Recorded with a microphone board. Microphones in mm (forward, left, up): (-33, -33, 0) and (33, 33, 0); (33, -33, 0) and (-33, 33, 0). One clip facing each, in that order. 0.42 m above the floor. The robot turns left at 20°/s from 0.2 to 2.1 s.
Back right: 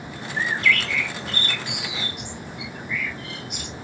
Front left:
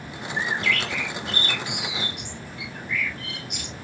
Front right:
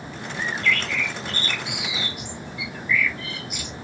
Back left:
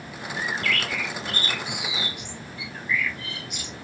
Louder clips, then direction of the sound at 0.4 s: Back right 3 dB, front right 2 dB; 110° left.